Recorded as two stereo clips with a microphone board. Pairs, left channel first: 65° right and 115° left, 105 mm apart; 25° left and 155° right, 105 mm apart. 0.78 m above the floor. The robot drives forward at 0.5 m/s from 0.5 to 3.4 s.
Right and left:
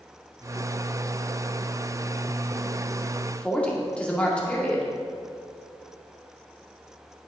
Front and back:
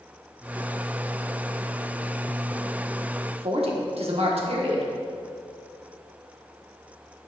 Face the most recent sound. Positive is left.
turn(degrees=-145)